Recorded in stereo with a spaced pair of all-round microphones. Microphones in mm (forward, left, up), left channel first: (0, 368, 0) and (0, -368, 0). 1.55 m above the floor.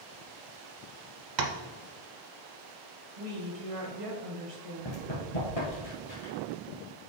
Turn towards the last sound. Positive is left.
turn(degrees=55)  # may be behind; listen again after turning